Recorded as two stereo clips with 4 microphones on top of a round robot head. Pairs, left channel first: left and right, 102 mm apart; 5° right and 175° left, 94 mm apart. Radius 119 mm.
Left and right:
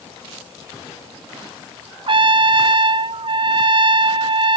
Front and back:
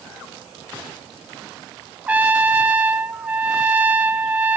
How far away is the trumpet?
About 0.6 m.